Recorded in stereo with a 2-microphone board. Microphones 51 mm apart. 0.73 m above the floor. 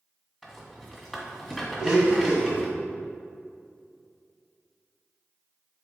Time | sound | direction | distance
0.4 | a rattle | centre (ahead or behind) | 1.3 m
1.8 | a blender | 20° right (ahead or behind) | 1.5 m